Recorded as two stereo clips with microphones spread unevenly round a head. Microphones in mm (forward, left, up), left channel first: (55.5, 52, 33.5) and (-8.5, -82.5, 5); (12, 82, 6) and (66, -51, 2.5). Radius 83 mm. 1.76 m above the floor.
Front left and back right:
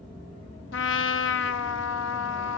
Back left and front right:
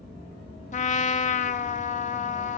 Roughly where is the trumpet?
Left.